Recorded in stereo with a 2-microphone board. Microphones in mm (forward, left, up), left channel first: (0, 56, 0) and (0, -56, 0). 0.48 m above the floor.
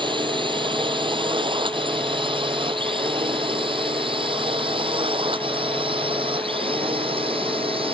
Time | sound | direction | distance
0.0 | a drone | 45° right (ahead or behind) | ?